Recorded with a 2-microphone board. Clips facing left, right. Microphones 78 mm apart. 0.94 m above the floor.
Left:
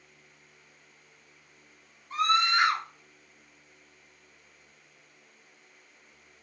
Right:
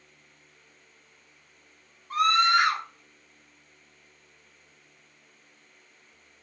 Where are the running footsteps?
No running footsteps in this recording.